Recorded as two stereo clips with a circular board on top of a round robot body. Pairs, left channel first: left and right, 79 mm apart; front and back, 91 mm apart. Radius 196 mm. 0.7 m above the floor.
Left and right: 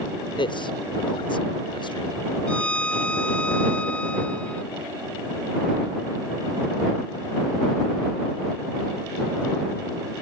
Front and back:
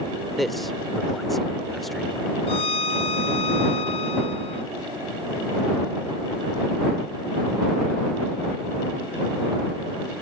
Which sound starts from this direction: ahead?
A violin, at 2.5 s.